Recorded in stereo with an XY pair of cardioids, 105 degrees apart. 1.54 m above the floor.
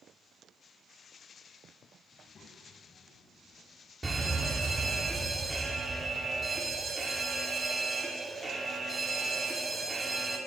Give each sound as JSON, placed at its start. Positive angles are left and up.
{"t": 2.1, "sound": "a child speaking", "azimuth_deg": 50, "distance_m": 6.0}
{"t": 4.0, "sound": "a fire alarm", "azimuth_deg": -15, "distance_m": 6.5}